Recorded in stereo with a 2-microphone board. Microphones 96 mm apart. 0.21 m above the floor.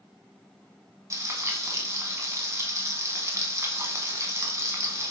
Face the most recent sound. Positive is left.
turn(degrees=-30)  # may be behind; listen again after turning